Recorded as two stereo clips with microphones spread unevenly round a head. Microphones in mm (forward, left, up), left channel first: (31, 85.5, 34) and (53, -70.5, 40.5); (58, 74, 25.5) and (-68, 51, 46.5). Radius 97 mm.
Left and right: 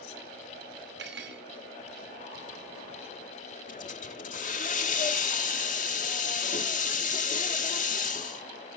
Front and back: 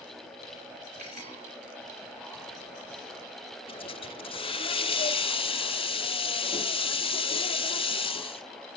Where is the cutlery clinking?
115° right, 2.5 m.